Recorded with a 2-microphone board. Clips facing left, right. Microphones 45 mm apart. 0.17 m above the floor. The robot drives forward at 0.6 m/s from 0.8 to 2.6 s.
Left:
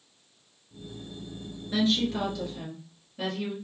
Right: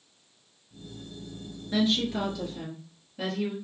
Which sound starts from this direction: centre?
A woman speaking, at 1.7 s.